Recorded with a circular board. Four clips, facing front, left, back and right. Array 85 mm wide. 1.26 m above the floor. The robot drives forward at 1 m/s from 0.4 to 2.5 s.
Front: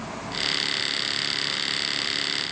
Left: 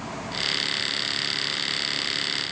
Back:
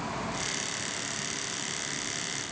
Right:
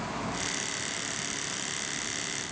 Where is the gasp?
I don't hear a gasp.